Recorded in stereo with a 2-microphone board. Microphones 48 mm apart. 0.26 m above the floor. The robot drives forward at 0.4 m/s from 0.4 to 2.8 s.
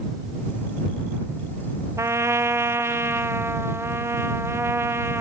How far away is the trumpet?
About 1.0 m.